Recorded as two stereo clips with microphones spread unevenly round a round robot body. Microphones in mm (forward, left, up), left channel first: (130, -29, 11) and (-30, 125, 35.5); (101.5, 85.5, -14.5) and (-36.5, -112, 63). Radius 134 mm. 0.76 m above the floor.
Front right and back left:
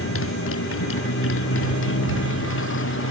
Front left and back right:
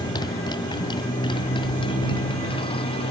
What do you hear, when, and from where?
0.0 s a motorcycle: 20° right; by 3.1 s 15° right